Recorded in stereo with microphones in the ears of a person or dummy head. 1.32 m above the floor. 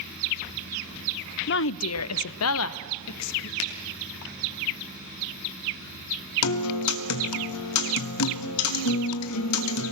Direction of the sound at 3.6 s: 75° left (ahead or behind).